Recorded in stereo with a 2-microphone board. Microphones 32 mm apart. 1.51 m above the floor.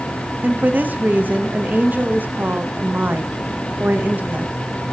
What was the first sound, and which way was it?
A woman speaking, 65° right (ahead or behind).